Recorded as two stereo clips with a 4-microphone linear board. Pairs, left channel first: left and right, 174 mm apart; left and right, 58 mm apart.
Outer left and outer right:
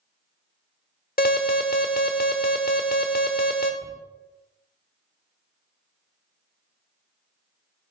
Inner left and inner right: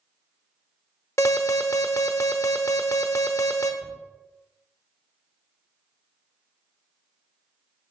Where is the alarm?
55° left (ahead or behind), 0.9 m.